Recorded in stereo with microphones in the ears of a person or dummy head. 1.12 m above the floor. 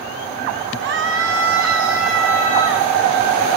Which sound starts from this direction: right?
A scream, at 0.8 s.